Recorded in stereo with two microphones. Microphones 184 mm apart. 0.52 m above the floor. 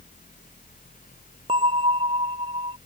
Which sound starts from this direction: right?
A bell, at 1.5 s.